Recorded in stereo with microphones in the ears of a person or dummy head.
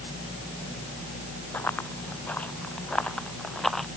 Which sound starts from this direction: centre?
Running footsteps, at 1.5 s.